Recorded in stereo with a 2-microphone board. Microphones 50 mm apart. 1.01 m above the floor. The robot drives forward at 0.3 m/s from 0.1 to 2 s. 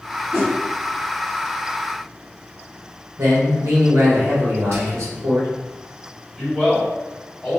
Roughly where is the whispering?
Right.